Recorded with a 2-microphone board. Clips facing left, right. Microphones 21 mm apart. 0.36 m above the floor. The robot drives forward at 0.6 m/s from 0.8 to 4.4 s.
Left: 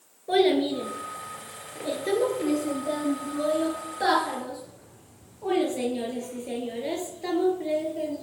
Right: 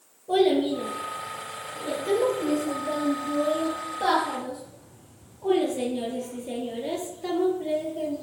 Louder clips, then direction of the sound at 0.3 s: Even; 80° left.